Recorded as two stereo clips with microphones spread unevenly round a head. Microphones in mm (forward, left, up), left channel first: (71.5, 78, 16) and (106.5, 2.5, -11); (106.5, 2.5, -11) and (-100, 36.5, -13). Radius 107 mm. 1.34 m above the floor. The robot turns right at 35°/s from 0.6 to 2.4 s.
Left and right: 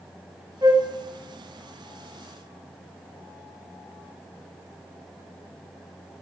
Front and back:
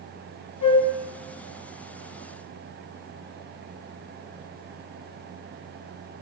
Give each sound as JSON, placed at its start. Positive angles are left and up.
{"t": 0.6, "sound": "a flute", "azimuth_deg": -15, "distance_m": 1.1}